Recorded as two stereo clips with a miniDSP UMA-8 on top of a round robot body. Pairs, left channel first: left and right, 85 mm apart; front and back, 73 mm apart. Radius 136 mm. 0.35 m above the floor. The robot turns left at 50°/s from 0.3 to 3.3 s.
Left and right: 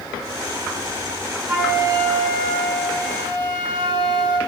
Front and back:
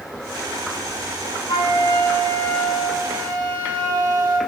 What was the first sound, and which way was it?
A flute, 25° right.